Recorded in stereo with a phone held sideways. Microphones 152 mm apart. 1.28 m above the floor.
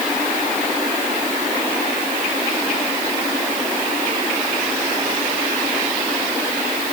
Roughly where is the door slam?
No door slam in this recording.